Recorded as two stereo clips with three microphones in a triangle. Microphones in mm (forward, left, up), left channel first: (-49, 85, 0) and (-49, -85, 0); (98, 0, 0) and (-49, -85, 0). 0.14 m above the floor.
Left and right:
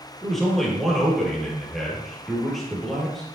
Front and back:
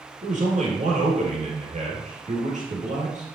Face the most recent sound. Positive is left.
turn(degrees=180)